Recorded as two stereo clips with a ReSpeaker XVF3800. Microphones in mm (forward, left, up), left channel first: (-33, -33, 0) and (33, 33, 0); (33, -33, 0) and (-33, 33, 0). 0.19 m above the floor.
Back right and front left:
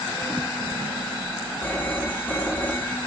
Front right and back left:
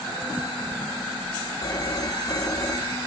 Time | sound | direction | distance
1.6 | a phone ringing | 70° right | 1.3 m